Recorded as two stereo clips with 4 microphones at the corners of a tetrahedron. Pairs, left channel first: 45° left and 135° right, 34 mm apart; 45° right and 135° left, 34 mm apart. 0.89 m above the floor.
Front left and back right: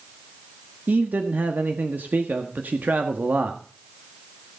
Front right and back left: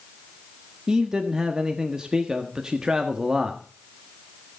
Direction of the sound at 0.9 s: 155° right.